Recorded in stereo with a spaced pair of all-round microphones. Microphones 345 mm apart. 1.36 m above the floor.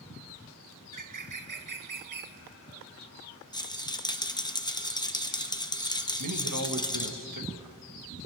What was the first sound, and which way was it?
A bird, 70° right (ahead or behind).